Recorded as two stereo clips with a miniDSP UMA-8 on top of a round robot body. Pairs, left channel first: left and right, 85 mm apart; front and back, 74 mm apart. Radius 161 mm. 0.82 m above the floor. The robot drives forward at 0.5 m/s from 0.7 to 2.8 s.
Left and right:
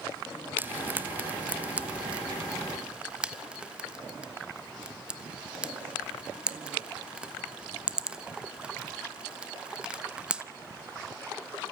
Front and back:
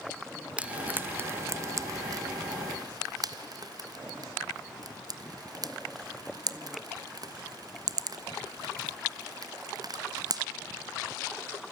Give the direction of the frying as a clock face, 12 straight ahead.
4 o'clock.